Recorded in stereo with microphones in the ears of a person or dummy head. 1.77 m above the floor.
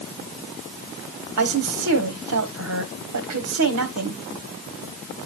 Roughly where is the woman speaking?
Right.